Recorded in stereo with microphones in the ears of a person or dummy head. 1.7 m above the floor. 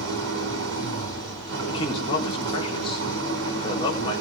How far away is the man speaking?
About 4.5 m.